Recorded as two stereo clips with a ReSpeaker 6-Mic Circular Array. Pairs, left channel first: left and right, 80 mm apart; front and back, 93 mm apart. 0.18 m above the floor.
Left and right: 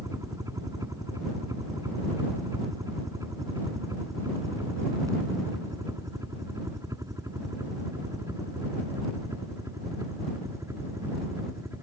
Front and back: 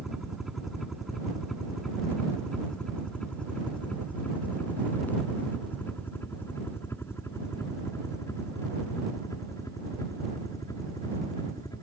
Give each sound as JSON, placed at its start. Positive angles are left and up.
{"t": 0.0, "sound": "a helicopter", "azimuth_deg": -95}